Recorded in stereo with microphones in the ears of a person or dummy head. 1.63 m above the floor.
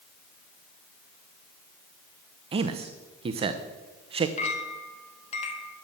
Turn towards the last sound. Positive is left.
turn(degrees=40)  # may be behind; listen again after turning